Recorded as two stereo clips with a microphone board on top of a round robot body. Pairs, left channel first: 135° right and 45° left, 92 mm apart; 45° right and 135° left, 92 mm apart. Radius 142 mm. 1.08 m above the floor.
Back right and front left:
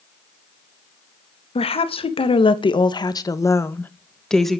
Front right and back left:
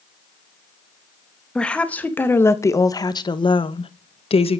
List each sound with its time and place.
1.6 s a woman speaking: 125° right, 2 m; by 4.6 s 45° right, 1.7 m